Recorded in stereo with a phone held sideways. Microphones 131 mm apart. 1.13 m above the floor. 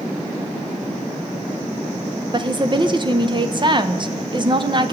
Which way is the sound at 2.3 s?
35° right (ahead or behind).